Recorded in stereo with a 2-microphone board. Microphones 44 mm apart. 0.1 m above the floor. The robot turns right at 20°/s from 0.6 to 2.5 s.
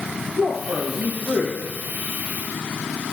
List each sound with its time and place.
0.3 s a man speaking: 10° right (ahead or behind), 3 m; by 1.6 s 30° right (ahead or behind), 3 m